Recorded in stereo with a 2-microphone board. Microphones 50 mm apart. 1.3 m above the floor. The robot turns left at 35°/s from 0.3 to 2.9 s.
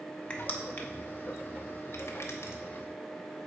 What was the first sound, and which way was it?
Crushing, 25° left (ahead or behind).